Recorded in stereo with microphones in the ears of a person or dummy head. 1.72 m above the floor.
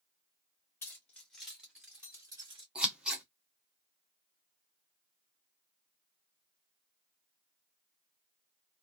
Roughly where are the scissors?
Centre.